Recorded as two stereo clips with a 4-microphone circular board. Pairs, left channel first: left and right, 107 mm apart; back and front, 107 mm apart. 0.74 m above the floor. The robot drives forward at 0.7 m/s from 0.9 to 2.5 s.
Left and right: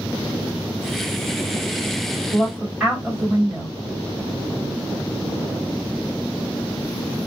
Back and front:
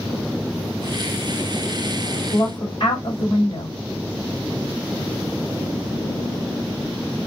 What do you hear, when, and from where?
2.3 s a woman speaking: 170° right, 1.8 m